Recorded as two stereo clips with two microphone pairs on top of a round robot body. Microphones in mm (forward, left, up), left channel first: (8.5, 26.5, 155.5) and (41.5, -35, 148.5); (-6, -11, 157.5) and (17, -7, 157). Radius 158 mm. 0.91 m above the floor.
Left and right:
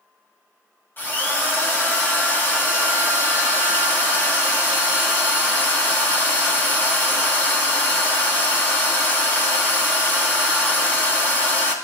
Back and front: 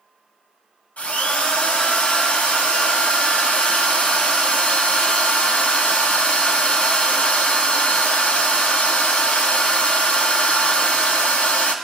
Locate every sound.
1.0 s a drill: straight behind, 2 m